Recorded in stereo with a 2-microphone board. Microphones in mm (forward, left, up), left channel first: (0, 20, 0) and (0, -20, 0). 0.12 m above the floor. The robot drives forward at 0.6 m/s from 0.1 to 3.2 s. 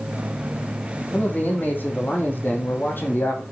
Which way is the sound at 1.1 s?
50° left (ahead or behind).